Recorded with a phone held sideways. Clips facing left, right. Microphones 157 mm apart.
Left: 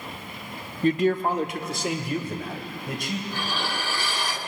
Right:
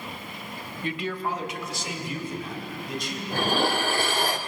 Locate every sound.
0.8 s a man speaking: 40° left (ahead or behind), 1.0 m; by 3.2 s 60° left (ahead or behind), 4 m
3.3 s dishes clattering: 55° right (ahead or behind), 1.2 m